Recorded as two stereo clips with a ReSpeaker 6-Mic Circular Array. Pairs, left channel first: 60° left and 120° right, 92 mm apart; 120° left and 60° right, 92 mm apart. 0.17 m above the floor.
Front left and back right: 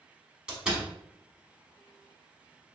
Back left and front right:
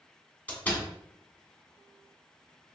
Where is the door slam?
170° left, 1.1 m.